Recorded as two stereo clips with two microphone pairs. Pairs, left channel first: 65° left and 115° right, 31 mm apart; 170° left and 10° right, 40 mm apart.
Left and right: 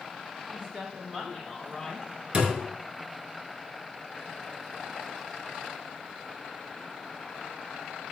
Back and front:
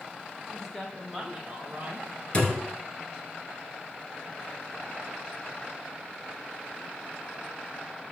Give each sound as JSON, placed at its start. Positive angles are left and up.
{"t": 0.5, "sound": "a woman speaking", "azimuth_deg": -125, "distance_m": 1.5}
{"t": 2.3, "sound": "a thud", "azimuth_deg": -140, "distance_m": 0.9}